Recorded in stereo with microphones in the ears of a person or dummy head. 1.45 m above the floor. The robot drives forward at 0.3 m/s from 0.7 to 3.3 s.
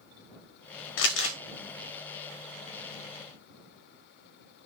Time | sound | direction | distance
1.0 | crumpling | 80° left | 0.8 m